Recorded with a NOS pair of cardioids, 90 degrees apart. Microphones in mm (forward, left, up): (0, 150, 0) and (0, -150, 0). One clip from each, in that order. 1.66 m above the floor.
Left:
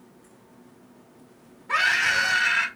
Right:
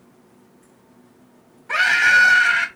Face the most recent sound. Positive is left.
turn(degrees=-30)